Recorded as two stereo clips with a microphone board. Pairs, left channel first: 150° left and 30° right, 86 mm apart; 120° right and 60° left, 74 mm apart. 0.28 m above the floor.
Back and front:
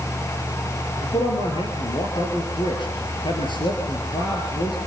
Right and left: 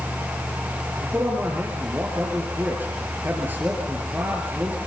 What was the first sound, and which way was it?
A man speaking, 125° left.